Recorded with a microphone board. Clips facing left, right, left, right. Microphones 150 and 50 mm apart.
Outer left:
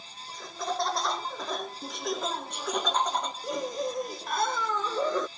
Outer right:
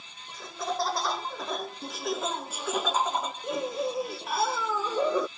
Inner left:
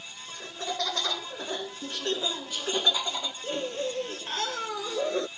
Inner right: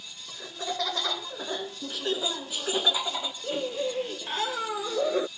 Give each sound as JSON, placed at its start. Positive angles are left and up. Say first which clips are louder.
{"t": 0.3, "sound": "laughter", "louder": "even, inner right 1 dB", "side_deg": 0}